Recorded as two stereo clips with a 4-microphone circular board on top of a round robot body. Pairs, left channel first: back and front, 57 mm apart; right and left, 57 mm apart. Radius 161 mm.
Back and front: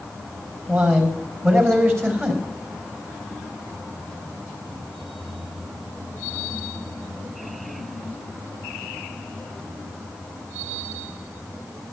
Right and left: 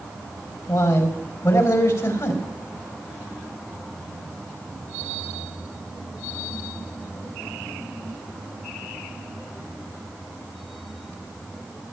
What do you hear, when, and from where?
0.7 s a man speaking: 50° right, 3.5 m